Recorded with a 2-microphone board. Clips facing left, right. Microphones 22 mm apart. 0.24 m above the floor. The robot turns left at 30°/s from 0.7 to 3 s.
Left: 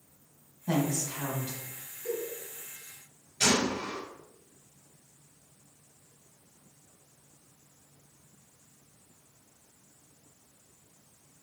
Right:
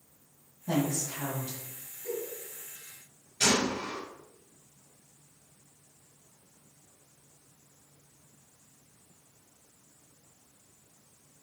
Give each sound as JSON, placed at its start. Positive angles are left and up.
{"t": 0.7, "sound": "a woman speaking", "side_deg": 30, "distance_m": 1.2}
{"t": 2.0, "sound": "a giggle", "side_deg": 10, "distance_m": 1.5}
{"t": 3.4, "sound": "a gunshot", "side_deg": 0, "distance_m": 1.3}